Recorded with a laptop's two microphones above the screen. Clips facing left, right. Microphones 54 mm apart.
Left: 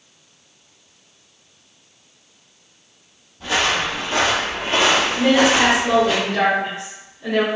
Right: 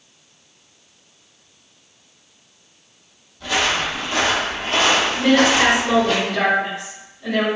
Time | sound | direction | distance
3.4 | footsteps | 20° left (ahead or behind) | 1.4 m
5.2 | a woman speaking | 20° left (ahead or behind) | 1.1 m